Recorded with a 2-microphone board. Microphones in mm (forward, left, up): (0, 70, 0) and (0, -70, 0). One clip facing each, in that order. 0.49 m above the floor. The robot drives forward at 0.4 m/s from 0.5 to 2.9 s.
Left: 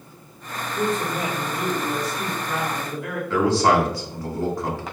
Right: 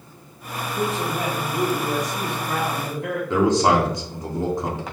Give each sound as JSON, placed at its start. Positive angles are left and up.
{"t": 0.7, "sound": "a man speaking", "side_deg": -20, "distance_m": 2.5}
{"t": 3.3, "sound": "a man speaking", "side_deg": -20, "distance_m": 1.1}